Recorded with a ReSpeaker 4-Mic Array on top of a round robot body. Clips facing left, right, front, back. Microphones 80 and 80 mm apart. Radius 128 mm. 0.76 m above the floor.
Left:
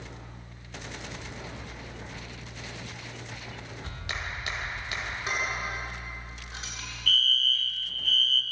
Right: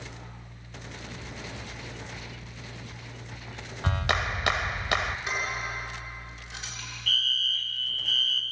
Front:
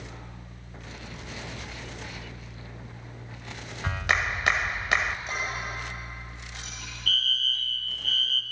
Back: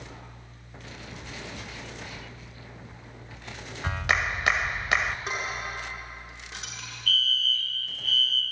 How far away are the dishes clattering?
About 7.5 m.